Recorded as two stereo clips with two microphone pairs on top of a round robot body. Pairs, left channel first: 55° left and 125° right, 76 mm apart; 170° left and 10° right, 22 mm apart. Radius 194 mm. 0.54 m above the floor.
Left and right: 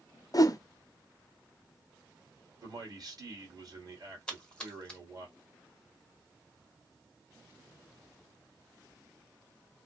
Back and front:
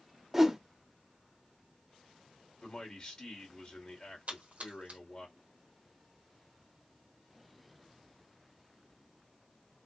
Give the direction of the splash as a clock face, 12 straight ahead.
1 o'clock.